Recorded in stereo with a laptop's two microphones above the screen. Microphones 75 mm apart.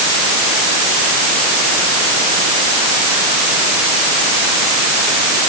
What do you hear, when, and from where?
Only background noise.